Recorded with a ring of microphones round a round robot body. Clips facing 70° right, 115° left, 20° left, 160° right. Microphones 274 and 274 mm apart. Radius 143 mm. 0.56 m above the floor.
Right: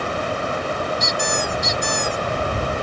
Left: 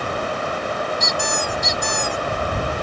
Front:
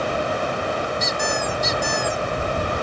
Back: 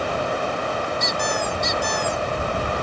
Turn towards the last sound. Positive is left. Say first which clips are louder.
# right 1 dB, even
turn(degrees=105)